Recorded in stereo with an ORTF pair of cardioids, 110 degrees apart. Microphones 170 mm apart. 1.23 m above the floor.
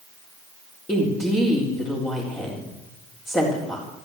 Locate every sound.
0.9 s a woman speaking: 10° left, 4.5 m